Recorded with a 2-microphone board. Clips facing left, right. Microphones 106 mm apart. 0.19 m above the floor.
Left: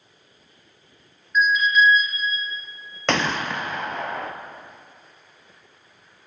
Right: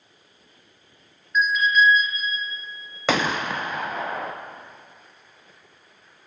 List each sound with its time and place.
1.4 s an alarm: centre (ahead or behind), 4 m
3.1 s a gunshot: 5° right (ahead or behind), 0.8 m